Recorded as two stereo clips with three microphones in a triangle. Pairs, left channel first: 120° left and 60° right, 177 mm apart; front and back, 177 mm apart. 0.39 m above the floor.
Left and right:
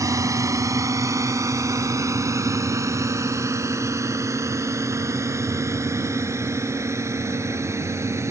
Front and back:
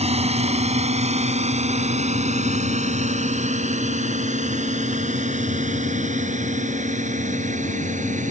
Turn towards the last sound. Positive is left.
turn(degrees=-135)